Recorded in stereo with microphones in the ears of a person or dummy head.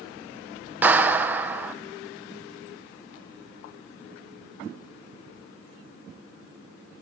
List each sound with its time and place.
0.8 s a clap: 10° right (ahead or behind), 1.1 m